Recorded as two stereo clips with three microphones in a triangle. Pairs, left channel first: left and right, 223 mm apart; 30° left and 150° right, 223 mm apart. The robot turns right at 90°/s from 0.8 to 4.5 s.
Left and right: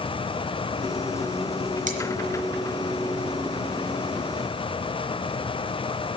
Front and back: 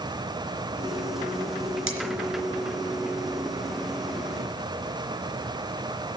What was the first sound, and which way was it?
Cutlery clinking, 145° right.